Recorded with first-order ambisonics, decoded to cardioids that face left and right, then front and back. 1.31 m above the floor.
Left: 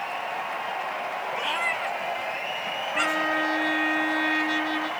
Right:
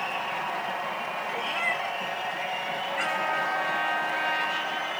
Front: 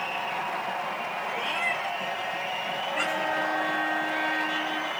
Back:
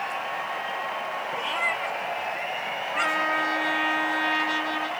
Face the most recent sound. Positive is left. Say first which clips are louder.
# left 3 dB, back 4 dB
turn(degrees=140)